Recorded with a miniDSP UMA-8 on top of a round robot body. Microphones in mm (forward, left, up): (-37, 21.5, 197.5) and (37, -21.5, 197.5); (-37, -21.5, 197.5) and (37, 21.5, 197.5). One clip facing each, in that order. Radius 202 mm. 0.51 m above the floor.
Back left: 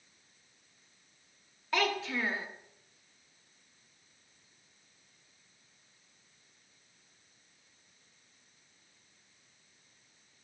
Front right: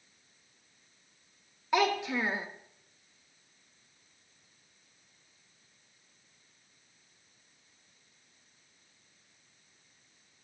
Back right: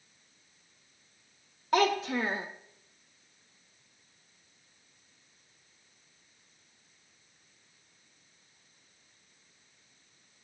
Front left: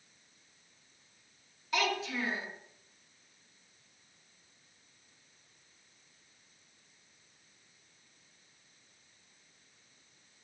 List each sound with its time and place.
1.7 s a child speaking: 105° right, 1.0 m